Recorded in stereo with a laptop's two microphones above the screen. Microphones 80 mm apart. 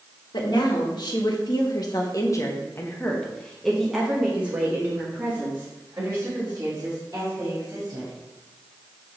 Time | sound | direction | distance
0.3 | a woman speaking | 70° left (ahead or behind) | 1.7 m